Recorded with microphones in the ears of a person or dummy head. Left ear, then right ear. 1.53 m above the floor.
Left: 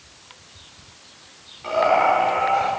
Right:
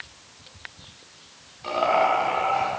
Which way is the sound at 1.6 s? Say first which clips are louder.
Left 3 dB; 10° right (ahead or behind).